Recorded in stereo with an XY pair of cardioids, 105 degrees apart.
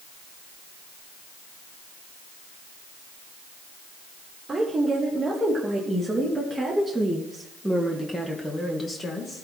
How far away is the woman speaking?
About 3 m.